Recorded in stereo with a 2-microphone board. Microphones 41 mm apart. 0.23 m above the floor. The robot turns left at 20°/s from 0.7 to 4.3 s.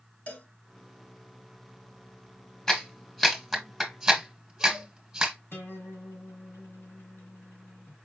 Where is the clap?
15° left (ahead or behind), 1.7 m; by 5.3 s 10° right (ahead or behind), 1.7 m.